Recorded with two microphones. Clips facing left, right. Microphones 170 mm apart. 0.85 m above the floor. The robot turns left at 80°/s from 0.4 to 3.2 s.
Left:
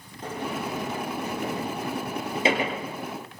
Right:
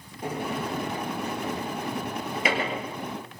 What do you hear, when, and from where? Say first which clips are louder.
0.2 s a sliding door: right 1 dB; 15° right (ahead or behind), 5.5 m; by 2.8 s 5° left (ahead or behind), 5.5 m